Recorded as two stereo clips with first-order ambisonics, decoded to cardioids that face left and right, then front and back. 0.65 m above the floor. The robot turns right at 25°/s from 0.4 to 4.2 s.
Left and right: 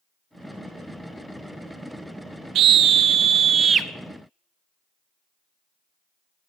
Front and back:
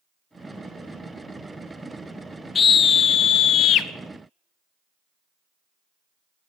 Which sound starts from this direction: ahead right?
A scream, at 2.5 s.